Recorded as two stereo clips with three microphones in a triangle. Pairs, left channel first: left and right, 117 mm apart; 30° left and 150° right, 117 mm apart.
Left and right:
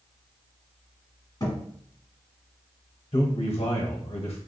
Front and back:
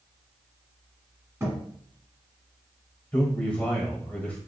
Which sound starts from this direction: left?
A man speaking, at 3.1 s.